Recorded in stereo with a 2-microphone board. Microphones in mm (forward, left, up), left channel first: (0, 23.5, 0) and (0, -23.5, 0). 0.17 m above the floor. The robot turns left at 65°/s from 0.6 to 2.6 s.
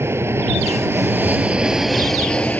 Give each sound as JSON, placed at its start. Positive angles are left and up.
{"t": 0.0, "sound": "an aircraft", "azimuth_deg": -90}